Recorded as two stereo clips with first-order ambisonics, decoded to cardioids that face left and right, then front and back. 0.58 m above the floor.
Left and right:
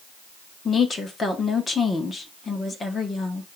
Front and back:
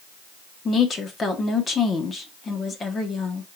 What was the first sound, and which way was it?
A woman speaking, 40° left.